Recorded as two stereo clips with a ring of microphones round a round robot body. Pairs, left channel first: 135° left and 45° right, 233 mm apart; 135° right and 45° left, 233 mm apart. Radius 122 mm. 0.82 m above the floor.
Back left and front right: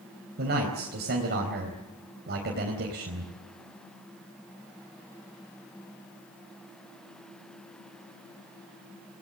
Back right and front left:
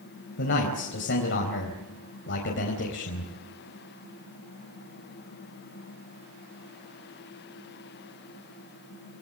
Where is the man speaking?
95° right, 4 m.